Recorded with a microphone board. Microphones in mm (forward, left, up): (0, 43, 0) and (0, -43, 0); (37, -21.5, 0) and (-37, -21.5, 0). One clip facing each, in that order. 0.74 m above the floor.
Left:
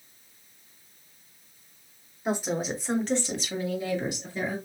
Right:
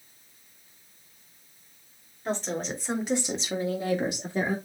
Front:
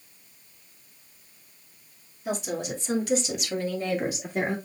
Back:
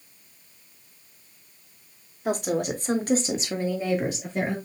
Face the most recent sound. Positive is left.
turn(degrees=-70)